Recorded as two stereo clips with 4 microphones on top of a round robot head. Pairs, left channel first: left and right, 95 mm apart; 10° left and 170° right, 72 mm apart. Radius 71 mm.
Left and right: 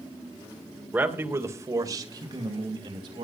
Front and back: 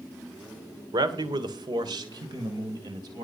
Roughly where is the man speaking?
Behind.